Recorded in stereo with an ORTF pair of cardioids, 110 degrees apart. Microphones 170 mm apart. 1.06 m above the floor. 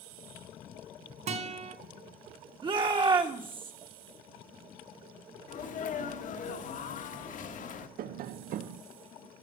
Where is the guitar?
50° right, 2 m.